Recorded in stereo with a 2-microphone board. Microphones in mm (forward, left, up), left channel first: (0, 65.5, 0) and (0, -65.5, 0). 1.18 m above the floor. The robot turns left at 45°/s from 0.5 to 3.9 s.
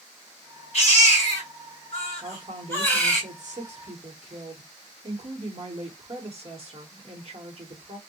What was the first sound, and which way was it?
A baby crying, 110° left.